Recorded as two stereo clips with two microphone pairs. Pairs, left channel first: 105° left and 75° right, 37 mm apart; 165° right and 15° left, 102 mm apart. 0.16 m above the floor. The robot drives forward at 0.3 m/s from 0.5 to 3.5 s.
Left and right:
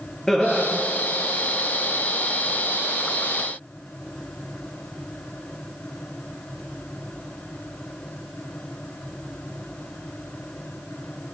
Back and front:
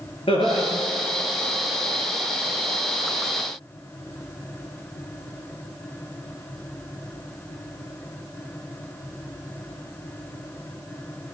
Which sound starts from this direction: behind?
Laughter, at 0.3 s.